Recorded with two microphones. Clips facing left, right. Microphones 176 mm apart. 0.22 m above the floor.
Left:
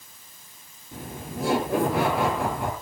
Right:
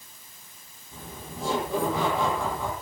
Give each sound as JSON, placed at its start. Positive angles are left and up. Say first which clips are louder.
{"t": 0.9, "sound": "laughter", "louder": "left 5 dB", "side_deg": 75, "distance_m": 5.0}